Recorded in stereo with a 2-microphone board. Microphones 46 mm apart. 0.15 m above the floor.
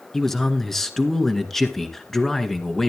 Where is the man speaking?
10° left (ahead or behind), 1.7 m.